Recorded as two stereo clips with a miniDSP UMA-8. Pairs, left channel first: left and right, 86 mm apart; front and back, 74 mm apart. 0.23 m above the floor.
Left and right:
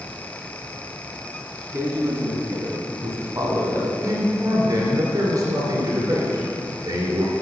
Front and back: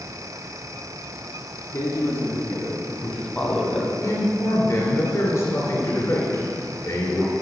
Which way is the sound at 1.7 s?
30° right.